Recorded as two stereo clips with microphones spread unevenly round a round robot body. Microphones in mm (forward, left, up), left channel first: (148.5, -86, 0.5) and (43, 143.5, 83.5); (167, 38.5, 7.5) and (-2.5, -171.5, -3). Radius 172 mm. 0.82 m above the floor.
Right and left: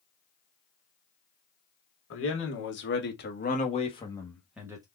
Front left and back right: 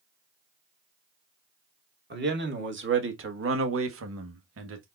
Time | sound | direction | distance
2.1 | a man speaking | 80° right | 1.8 m